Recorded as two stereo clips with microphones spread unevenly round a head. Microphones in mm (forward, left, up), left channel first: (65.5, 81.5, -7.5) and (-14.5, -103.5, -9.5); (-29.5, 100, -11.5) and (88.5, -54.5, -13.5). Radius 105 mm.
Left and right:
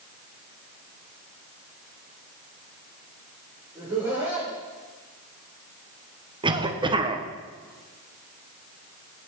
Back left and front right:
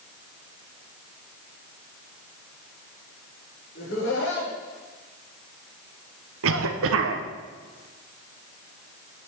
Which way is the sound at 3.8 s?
170° left.